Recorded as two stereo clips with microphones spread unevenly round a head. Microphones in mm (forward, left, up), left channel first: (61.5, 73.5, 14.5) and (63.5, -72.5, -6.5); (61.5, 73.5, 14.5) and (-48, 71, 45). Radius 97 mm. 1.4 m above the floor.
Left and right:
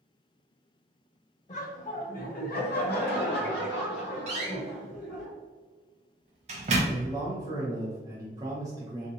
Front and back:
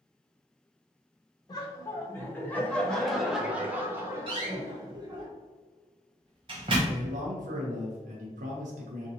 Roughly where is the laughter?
Ahead left.